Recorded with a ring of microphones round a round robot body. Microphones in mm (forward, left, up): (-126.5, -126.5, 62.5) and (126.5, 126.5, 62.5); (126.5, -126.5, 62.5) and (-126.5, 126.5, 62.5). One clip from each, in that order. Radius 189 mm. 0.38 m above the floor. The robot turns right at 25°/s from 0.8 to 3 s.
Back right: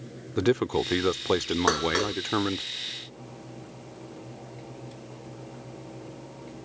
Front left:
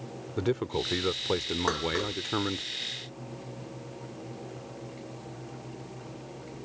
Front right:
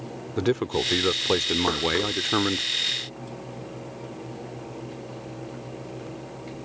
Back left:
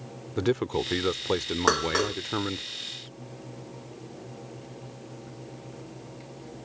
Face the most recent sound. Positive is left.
turn(degrees=-160)